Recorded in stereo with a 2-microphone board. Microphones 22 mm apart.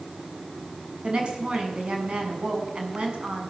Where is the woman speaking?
50° right (ahead or behind), 7 m.